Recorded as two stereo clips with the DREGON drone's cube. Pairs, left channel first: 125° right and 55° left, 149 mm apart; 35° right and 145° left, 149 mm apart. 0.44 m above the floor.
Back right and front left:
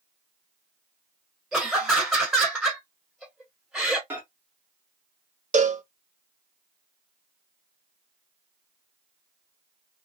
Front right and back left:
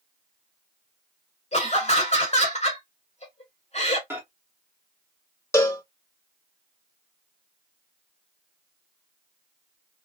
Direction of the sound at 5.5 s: 35° left.